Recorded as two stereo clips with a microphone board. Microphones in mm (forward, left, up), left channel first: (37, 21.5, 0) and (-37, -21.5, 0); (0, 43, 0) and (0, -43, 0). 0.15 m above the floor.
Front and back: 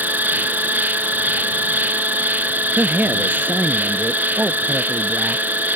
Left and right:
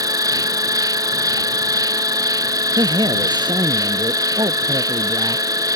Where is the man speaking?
85° right.